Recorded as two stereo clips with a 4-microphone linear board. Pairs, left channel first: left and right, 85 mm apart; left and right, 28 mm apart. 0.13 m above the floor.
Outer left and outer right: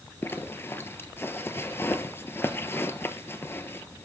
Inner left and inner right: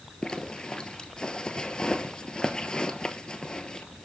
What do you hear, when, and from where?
0.2 s a zipper: 30° left (ahead or behind), 1.0 m